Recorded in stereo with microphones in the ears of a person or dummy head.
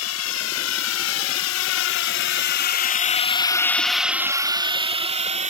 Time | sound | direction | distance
0.0 | a drone | 85° left | ?